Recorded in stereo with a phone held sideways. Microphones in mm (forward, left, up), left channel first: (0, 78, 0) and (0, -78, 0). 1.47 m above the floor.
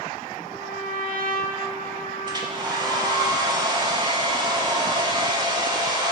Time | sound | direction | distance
0.4 | a trumpet | 70° right (ahead or behind) | 1.5 m
2.3 | a hair dryer | 25° right (ahead or behind) | 1.5 m